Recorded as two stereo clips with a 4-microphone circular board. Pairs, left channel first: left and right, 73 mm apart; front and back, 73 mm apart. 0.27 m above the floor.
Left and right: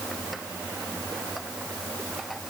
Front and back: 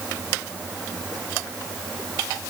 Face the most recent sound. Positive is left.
No sound to turn to.